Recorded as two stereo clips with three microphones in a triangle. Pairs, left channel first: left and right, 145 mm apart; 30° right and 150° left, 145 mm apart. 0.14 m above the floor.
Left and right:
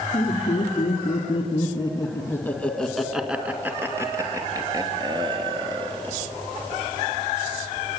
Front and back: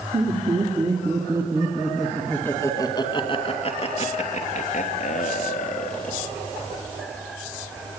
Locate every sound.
0.1 s laughter: 110° left, 3 m; by 6.2 s 35° right, 4.5 m